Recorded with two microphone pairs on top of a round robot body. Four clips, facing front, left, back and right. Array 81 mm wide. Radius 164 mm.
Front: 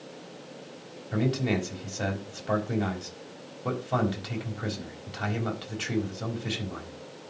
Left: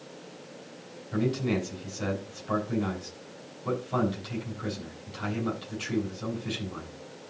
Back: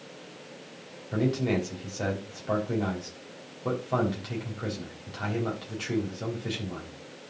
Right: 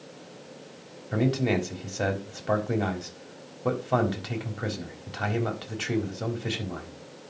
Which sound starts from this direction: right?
A man speaking, at 1.1 s.